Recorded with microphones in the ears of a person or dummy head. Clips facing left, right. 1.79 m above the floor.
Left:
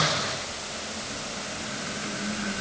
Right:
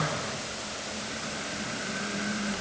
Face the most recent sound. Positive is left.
No sound to turn to.